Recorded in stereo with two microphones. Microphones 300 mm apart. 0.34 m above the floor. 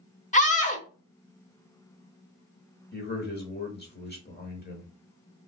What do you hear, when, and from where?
0.3 s a scream: 25° left (ahead or behind), 1.0 m
2.9 s a man speaking: 35° left (ahead or behind), 1.1 m